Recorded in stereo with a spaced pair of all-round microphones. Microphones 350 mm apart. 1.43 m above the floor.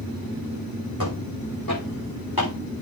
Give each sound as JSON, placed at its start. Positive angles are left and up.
{"t": 1.0, "sound": "footsteps", "side_deg": 75, "distance_m": 7.0}